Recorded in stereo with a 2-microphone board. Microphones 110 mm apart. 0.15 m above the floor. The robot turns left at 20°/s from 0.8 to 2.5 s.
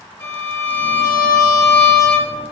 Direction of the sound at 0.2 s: 20° left (ahead or behind).